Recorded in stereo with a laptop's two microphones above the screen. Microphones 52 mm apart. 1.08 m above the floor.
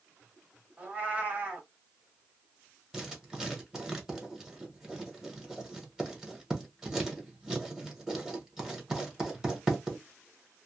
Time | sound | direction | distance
0.8 | a cat meowing | 25° right (ahead or behind) | 0.9 m
2.9 | writing | 10° right (ahead or behind) | 1.2 m